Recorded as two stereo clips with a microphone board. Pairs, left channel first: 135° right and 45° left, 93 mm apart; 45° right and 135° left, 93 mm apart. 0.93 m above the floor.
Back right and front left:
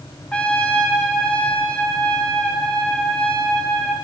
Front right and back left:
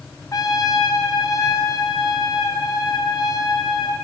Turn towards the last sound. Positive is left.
turn(degrees=-65)